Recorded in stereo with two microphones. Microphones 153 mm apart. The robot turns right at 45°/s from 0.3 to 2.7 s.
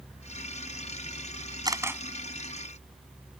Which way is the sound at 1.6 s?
25° right (ahead or behind).